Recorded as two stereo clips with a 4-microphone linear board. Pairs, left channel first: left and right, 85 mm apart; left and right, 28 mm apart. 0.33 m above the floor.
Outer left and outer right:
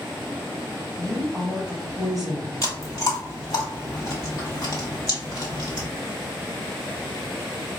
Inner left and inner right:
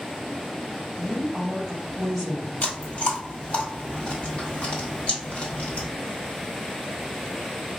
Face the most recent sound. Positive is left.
turn(degrees=45)  # may be behind; listen again after turning